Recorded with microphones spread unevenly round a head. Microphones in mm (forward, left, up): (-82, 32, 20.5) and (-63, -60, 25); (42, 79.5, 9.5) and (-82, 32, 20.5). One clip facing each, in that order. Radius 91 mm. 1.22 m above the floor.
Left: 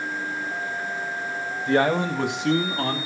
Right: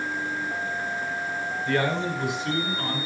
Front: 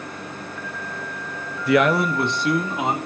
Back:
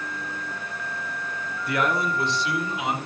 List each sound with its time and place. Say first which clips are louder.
1.7 s a man speaking: left 5 dB, front 7 dB; 20° left, 0.8 m; by 3.0 s 65° left, 2.5 m